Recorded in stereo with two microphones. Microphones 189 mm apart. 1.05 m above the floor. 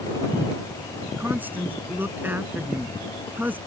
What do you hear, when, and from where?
1.2 s a woman speaking: 10° right (ahead or behind)